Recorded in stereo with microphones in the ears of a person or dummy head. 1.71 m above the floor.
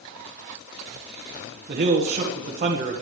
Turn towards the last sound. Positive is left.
turn(degrees=-40)  # may be behind; listen again after turning